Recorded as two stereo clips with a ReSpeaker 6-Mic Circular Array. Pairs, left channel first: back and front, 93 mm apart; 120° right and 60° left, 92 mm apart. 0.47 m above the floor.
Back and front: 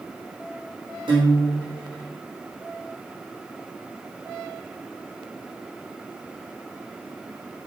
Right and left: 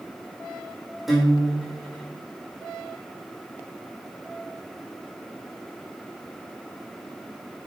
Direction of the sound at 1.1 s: 30° right.